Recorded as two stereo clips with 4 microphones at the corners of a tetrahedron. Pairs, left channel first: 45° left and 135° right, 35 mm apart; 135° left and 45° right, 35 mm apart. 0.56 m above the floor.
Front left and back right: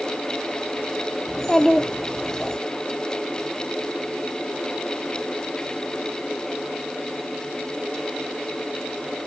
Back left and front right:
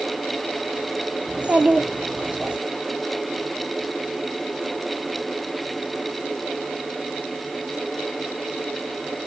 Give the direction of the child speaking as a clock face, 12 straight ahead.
1 o'clock.